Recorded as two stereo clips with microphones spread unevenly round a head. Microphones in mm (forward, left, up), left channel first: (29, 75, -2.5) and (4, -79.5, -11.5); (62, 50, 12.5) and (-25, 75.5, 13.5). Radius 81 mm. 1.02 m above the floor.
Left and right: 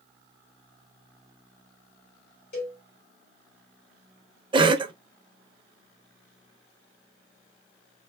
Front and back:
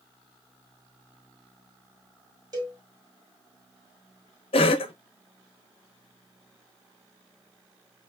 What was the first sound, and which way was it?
A cowbell, 120° left.